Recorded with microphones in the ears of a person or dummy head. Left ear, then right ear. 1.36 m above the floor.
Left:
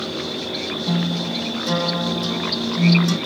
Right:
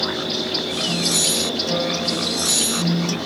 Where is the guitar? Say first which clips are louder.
Right 5 dB; 75° left (ahead or behind), 4 m.